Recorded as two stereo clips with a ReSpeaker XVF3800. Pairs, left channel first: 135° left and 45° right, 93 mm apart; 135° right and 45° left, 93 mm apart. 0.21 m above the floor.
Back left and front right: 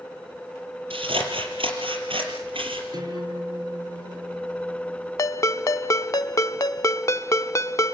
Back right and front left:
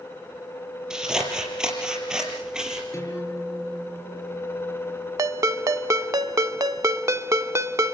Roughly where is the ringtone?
Left.